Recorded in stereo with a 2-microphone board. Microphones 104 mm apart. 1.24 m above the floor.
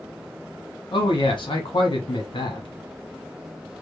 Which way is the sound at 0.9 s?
55° left (ahead or behind).